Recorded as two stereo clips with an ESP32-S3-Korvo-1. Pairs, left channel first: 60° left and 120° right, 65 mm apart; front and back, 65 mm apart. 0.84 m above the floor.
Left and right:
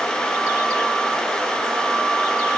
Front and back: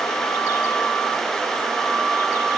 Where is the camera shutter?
I don't hear a camera shutter.